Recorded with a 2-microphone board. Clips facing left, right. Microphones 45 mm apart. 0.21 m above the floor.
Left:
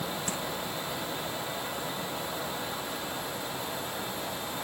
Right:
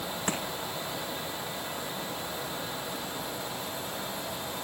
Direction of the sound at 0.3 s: 40° right (ahead or behind).